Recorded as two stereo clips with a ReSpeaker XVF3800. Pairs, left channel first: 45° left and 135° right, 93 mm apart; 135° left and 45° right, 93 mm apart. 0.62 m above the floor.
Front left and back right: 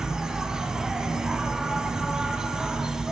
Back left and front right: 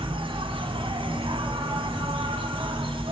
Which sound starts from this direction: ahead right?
An insect, at 0.0 s.